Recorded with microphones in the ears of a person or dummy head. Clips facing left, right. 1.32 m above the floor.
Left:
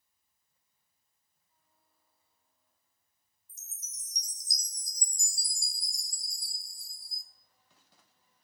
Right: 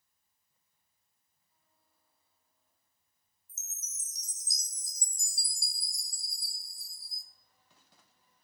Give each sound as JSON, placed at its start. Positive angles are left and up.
{"t": 3.5, "sound": "a chime", "side_deg": 0, "distance_m": 0.5}